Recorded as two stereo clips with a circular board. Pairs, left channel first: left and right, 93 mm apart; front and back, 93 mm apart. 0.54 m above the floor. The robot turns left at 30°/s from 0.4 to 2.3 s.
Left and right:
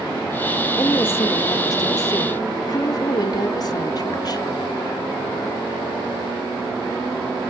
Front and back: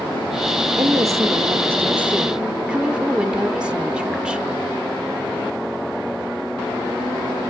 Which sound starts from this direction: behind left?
A woman speaking, at 0.8 s.